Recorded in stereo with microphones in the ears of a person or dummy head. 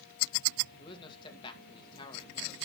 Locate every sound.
0.8 s a man speaking: 30° left (ahead or behind), 2.5 m